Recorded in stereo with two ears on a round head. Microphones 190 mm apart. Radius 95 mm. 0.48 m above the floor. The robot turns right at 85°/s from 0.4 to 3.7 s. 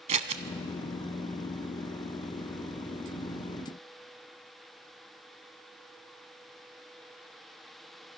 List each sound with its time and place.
0.1 s scissors: 30° right (ahead or behind), 1.0 m